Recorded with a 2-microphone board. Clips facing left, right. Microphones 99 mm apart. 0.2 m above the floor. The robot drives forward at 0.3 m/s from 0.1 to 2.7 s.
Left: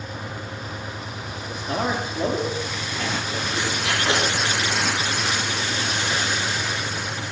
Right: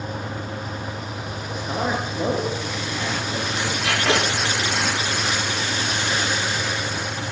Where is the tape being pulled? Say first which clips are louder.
Right 3 dB; 75° right (ahead or behind), 8.5 m.